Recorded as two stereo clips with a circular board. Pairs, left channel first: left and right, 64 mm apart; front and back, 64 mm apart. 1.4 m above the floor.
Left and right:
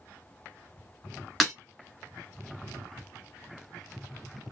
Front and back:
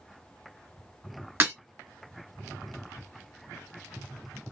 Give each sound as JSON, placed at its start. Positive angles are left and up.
{"t": 1.4, "sound": "breaking glass", "azimuth_deg": 170, "distance_m": 1.6}